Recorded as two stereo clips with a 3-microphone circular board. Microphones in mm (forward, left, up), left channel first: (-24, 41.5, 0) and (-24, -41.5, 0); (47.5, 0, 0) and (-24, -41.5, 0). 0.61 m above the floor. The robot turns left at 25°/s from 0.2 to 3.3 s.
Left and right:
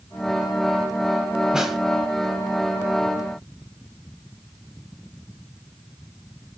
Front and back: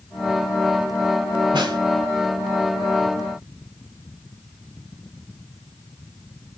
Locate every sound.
1.5 s a snare drum: 175° right, 1.3 m; by 1.8 s straight behind, 1.3 m